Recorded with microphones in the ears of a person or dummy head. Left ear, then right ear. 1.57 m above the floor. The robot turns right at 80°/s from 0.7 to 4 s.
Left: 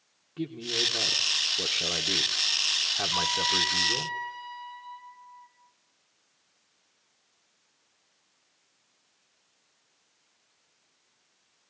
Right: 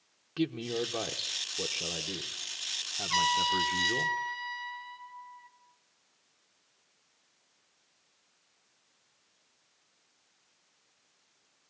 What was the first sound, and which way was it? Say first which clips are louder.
A man speaking: left 4 dB; 60° right.